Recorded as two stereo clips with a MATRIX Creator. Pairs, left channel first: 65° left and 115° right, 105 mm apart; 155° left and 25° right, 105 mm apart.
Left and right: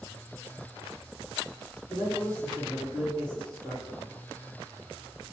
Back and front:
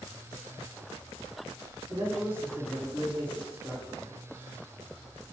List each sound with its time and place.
1.9 s a man speaking: 75° right, 1.9 m